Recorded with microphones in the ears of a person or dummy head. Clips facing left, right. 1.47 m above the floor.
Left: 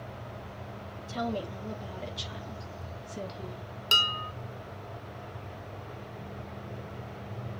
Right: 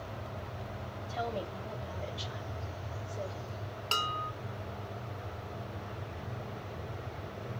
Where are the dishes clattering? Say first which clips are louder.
Left 1 dB; 20° left (ahead or behind), 3 m.